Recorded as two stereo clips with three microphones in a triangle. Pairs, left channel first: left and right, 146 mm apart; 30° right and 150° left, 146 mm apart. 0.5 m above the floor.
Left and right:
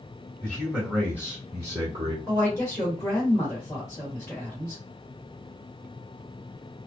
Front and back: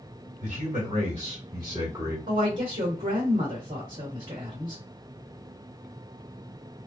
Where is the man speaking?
Straight behind, 1.6 m; by 2.2 s 140° right, 1.1 m.